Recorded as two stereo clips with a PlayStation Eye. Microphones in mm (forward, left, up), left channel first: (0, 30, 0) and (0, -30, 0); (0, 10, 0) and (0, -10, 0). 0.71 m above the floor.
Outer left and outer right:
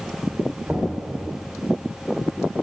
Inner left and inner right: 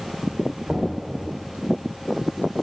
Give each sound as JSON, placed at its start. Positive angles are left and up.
{"t": 0.7, "sound": "knocking", "side_deg": -20, "distance_m": 1.8}